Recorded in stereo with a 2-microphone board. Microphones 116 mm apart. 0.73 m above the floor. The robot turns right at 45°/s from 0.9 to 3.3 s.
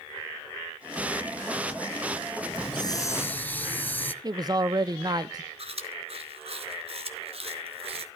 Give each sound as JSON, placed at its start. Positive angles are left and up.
{"t": 2.5, "sound": "a hiss", "azimuth_deg": 130, "distance_m": 2.5}
{"t": 4.2, "sound": "a man speaking", "side_deg": -35, "distance_m": 1.0}
{"t": 5.6, "sound": "chewing", "side_deg": -60, "distance_m": 4.5}